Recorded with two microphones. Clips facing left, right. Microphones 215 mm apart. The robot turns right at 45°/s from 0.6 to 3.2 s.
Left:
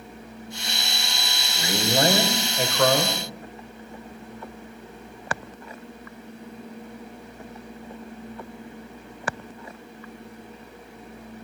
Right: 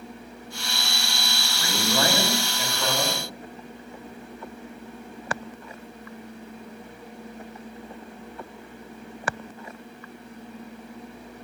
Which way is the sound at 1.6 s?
15° left.